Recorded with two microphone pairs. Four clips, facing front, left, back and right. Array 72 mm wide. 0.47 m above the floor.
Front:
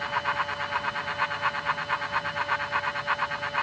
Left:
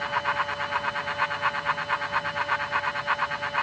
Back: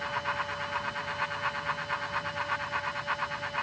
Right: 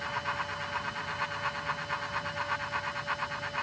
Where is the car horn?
No car horn in this recording.